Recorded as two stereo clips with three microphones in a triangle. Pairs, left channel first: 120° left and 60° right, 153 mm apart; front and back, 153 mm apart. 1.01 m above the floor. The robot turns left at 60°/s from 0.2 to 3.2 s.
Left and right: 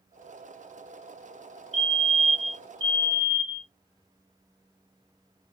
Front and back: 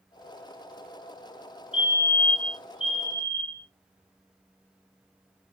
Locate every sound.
1.7 s a fire alarm: 35° right, 1.6 m; by 3.7 s 125° right, 1.6 m